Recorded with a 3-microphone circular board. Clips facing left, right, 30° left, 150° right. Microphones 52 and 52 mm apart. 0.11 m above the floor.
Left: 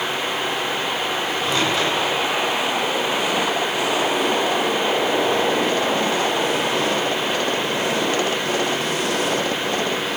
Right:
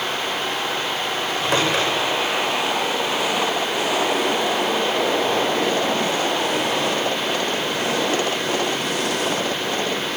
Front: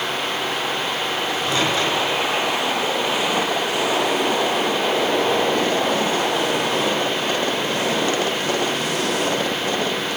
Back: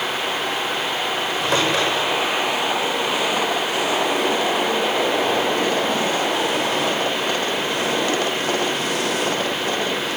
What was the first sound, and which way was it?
A microwave, 115° right.